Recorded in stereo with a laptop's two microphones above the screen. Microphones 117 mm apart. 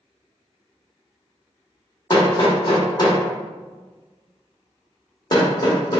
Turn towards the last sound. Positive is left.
turn(degrees=35)  # may be behind; listen again after turning